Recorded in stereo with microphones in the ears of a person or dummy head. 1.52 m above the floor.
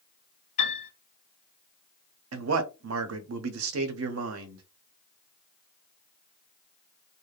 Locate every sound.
0.6 s a piano: 35° left (ahead or behind), 1.5 m
2.3 s a man speaking: 75° right (ahead or behind), 0.6 m